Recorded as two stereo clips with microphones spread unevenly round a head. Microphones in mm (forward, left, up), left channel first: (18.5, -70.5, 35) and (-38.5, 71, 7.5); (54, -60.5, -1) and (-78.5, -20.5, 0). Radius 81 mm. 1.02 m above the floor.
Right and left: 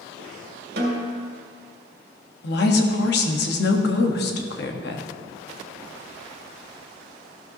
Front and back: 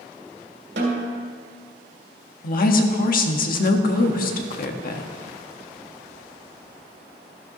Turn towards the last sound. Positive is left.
turn(degrees=-40)